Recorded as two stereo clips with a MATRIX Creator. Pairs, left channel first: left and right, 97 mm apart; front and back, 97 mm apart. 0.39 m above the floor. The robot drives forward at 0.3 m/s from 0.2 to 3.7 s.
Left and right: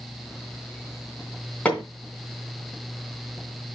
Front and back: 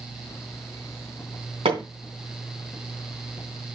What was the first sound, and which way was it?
Hammering, 165° left.